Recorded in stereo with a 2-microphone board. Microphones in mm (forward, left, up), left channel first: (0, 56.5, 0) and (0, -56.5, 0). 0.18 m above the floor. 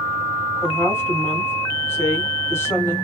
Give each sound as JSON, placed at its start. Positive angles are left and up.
{"t": 0.6, "sound": "a woman speaking", "side_deg": 25, "distance_m": 1.5}